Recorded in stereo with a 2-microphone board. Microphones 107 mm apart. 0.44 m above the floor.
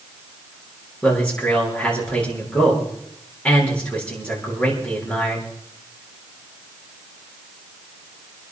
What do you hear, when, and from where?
1.0 s a man speaking: 10° left (ahead or behind), 7.5 m